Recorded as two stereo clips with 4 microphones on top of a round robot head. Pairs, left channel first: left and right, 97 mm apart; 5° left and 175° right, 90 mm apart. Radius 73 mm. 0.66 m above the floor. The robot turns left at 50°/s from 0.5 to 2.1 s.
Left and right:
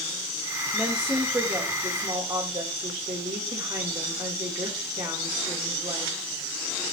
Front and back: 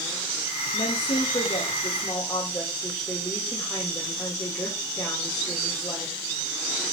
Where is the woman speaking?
Straight ahead, 2.5 m; by 6.2 s 70° right, 2.5 m.